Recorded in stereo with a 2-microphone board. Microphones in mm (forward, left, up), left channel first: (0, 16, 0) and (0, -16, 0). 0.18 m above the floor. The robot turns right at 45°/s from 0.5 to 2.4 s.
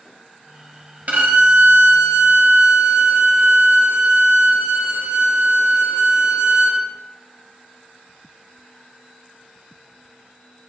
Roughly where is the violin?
Behind right.